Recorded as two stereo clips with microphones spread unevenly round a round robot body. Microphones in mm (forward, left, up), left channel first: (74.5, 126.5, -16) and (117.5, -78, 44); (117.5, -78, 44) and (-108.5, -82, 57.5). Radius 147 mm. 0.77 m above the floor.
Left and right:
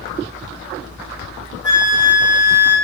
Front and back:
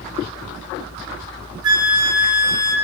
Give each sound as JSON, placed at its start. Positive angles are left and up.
{"t": 1.6, "sound": "a flute", "azimuth_deg": -125, "distance_m": 0.9}